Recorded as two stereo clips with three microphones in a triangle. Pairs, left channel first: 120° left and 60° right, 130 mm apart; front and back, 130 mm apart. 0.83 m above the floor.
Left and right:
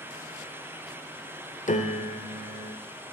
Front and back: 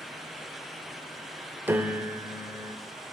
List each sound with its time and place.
1.7 s a piano: 105° left, 1.0 m